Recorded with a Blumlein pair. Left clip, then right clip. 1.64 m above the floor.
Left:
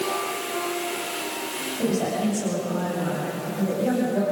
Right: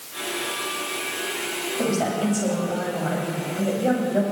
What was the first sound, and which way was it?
A woman speaking, 20° right.